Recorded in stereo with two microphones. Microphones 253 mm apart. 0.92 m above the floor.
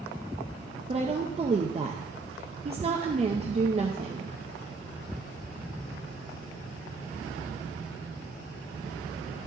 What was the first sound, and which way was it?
A woman speaking, 25° right (ahead or behind).